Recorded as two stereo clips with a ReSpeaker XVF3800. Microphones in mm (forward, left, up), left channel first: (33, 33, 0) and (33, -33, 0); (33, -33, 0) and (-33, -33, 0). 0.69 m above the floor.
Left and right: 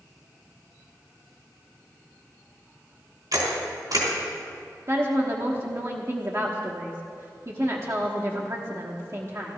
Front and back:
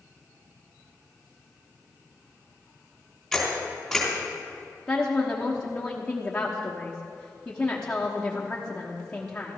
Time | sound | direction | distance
3.3 | a camera shutter | 85° right | 3.5 m
4.9 | a woman speaking | 70° right | 1.2 m